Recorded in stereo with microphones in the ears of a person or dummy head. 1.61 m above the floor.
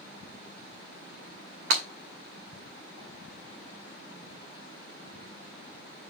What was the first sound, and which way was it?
Breaking glass, 55° right (ahead or behind).